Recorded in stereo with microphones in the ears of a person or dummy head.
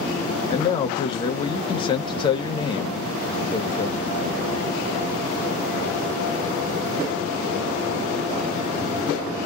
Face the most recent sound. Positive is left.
turn(degrees=20)  # may be behind; listen again after turning